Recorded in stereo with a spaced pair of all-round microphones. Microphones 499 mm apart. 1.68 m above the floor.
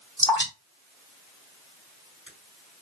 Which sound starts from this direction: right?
Dripping, at 0.2 s.